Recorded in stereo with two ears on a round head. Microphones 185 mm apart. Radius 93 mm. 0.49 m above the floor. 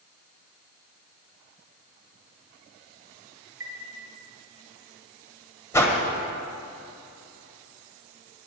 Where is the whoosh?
15° left (ahead or behind), 1.3 m.